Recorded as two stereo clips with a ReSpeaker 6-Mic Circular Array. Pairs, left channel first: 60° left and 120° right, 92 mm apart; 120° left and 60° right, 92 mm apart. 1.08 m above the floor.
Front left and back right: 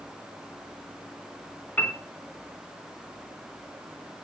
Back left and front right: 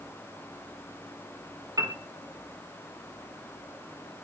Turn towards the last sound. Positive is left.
turn(degrees=-10)